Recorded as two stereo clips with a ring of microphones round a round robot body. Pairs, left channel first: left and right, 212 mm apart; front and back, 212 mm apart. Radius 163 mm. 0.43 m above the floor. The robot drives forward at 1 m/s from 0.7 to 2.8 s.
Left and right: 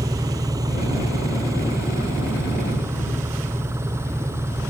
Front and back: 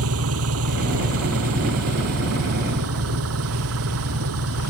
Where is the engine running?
170° right.